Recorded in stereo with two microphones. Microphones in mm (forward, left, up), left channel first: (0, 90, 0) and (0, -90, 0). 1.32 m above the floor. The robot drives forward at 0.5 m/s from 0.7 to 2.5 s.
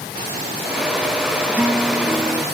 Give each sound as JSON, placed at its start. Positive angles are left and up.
{"t": 1.5, "sound": "a guitar", "side_deg": -10}